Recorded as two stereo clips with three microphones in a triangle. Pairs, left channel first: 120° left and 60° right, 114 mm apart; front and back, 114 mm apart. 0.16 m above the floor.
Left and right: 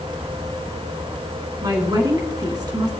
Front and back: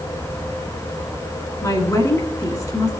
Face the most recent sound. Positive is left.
turn(degrees=-40)